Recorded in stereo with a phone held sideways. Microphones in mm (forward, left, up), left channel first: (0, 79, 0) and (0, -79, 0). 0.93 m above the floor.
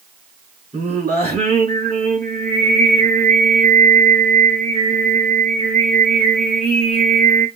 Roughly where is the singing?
Right.